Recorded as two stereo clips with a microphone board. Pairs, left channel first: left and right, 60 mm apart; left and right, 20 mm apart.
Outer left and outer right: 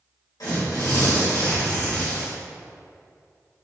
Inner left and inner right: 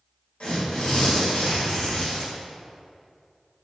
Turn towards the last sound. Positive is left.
turn(degrees=80)